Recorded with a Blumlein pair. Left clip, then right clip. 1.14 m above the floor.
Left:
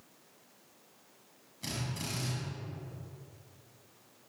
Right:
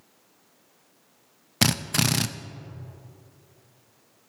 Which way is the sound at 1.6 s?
45° right.